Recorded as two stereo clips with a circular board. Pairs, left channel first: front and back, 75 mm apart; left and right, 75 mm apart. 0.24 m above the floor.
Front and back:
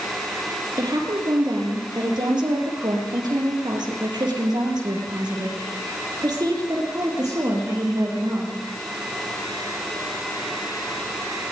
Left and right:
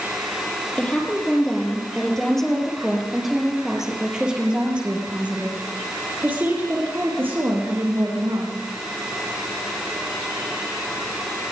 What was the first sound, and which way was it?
A woman speaking, 165° left.